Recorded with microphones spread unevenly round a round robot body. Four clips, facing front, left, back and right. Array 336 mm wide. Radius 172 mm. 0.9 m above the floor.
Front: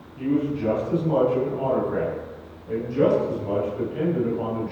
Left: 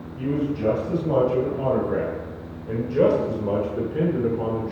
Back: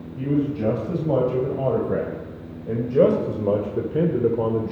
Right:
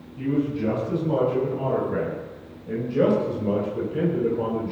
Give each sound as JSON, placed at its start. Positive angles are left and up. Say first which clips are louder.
{"t": 0.2, "sound": "a man speaking", "louder": "even, back 1 dB", "azimuth_deg": 165, "distance_m": 5.5}